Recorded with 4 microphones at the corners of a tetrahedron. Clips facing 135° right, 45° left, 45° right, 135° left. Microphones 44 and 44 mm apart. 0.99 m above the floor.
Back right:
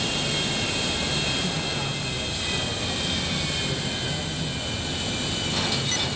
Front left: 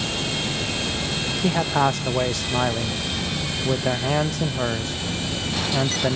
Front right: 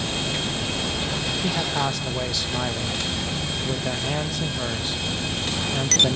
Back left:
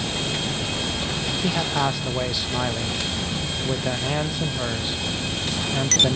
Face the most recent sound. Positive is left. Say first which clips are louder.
# front left 8 dB, back left 3 dB
turn(degrees=55)